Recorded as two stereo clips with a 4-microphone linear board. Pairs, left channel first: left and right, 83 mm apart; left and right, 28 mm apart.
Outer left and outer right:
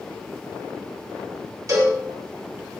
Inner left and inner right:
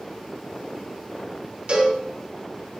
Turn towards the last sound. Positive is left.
turn(degrees=-45)  # may be behind; listen again after turning